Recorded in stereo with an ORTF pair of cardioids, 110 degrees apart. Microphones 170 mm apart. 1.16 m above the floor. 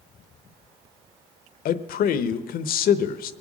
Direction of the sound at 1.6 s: 60° left.